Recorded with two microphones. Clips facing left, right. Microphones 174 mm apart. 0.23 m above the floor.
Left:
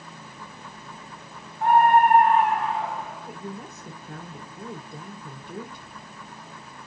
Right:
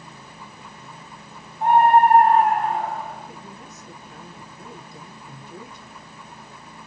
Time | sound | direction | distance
1.6 | a scream | 20° right (ahead or behind) | 1.5 m
3.3 | a woman speaking | 60° left (ahead or behind) | 3 m